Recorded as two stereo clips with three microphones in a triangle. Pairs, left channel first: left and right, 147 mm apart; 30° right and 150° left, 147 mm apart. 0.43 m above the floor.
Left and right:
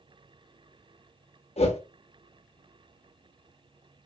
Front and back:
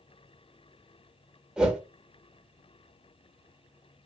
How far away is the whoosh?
About 0.5 m.